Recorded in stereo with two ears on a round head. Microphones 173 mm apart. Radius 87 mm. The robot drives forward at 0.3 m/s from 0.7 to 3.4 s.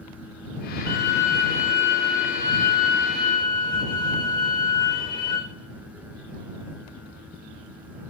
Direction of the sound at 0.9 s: 15° left (ahead or behind).